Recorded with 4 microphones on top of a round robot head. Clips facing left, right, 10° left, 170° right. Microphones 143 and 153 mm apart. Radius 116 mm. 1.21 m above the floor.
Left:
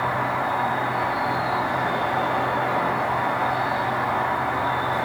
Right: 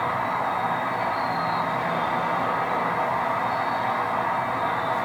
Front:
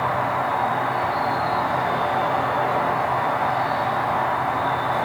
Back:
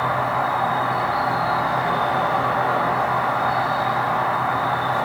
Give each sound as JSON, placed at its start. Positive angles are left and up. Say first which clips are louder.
{"t": 0.0, "sound": "an insect", "louder": "left 1 dB, back 1 dB", "azimuth_deg": 90, "distance_m": 1.1}